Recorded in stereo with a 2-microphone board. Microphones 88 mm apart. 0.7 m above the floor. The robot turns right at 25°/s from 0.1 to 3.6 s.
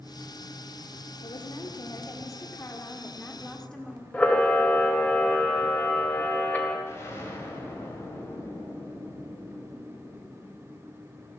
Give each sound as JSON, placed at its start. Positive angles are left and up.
{"t": 1.2, "sound": "a woman speaking", "azimuth_deg": 115, "distance_m": 1.6}
{"t": 4.1, "sound": "a camera shutter", "side_deg": 15, "distance_m": 2.0}
{"t": 6.9, "sound": "an explosion", "side_deg": 30, "distance_m": 3.0}